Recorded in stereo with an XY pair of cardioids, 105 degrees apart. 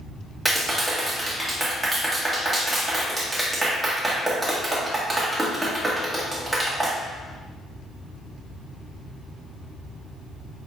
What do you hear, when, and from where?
0.5 s a clap: 15° right, 1.3 m